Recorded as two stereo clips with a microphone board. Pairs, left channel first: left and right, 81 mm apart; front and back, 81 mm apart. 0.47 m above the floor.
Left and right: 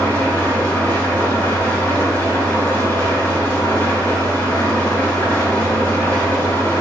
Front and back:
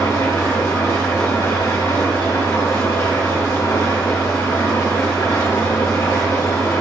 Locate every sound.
0.0 s an engine running: 30° left, 2.0 m